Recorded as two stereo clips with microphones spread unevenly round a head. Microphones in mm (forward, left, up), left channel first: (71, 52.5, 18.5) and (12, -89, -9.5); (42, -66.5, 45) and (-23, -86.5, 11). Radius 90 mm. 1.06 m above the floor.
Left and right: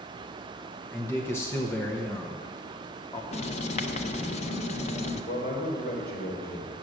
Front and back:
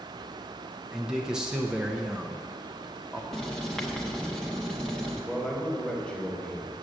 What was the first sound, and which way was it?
A man speaking, 150° left.